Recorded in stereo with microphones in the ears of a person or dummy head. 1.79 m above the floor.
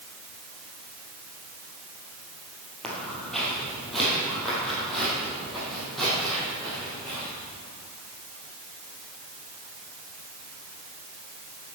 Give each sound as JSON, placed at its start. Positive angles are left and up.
{"t": 2.8, "sound": "footsteps", "side_deg": 5, "distance_m": 3.0}